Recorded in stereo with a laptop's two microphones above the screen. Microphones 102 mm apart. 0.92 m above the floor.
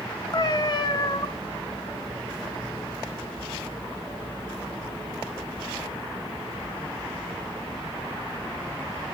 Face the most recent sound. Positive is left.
turn(degrees=45)  # may be behind; listen again after turning